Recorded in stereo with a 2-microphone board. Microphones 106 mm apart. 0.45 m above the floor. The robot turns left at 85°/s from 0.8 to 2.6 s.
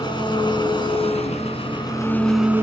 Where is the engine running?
130° left, 4.5 m; by 2.6 s 20° right, 4.5 m.